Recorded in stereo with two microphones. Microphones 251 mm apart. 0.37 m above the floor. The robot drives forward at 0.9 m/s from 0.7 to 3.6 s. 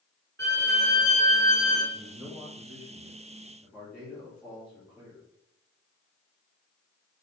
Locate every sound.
0.4 s a violin: 45° right (ahead or behind), 0.8 m; by 1.8 s 20° right (ahead or behind), 1.6 m
1.9 s a man speaking: 10° right (ahead or behind), 0.9 m; by 5.2 s 5° right (ahead or behind), 2 m